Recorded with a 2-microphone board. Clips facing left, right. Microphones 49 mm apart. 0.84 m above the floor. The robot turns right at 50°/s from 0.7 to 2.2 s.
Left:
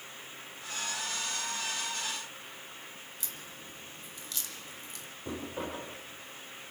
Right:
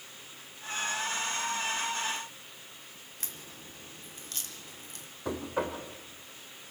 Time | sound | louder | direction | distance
3.2 | a crack | left 1 dB | 45° right (ahead or behind) | 3 m
5.2 | knocking | right 5 dB | 80° right | 3 m